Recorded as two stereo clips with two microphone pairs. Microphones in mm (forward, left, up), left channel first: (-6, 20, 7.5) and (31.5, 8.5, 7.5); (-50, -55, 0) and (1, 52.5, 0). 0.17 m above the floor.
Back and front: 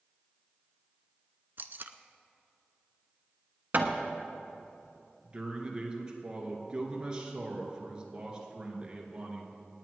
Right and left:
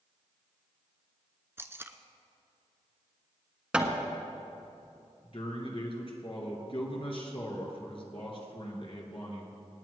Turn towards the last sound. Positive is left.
turn(degrees=-85)